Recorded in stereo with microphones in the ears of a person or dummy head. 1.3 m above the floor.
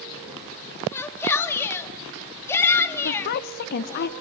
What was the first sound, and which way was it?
A shout, 15° left (ahead or behind).